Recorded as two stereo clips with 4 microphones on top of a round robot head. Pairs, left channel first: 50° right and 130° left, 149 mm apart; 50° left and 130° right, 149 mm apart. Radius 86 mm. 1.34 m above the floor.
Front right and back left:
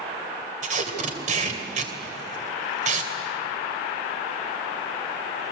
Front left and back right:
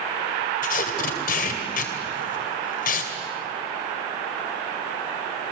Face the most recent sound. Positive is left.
turn(degrees=85)